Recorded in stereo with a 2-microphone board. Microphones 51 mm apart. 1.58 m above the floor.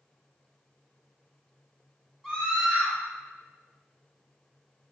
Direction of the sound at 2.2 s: 5° right (ahead or behind).